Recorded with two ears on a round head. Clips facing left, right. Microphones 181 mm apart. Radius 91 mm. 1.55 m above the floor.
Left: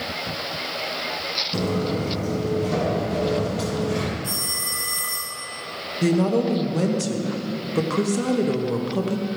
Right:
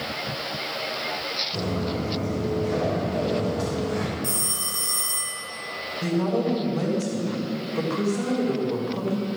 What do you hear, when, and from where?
1.5 s footsteps: 55° left (ahead or behind), 2.5 m; by 4.1 s 40° left (ahead or behind), 3.5 m
4.2 s a phone ringing: 40° right (ahead or behind), 2.5 m
6.0 s a woman speaking: 50° left (ahead or behind), 1.1 m